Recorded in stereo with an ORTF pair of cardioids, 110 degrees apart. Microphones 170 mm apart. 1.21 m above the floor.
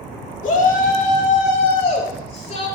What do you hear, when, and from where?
0.4 s a shout: 50° left, 2 m; by 2.7 s 40° left, 4 m